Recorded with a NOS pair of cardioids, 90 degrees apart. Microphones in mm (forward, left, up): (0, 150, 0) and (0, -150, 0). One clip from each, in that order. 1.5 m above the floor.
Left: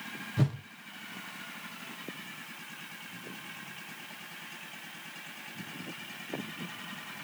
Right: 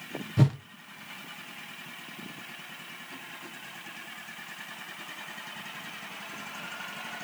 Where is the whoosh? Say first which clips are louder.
Right 6 dB; 25° right, 0.8 m.